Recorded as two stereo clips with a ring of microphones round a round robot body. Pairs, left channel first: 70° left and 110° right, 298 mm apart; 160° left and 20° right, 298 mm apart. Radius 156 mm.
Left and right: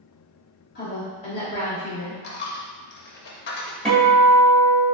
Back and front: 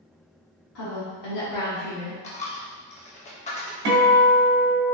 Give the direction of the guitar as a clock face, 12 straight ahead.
1 o'clock.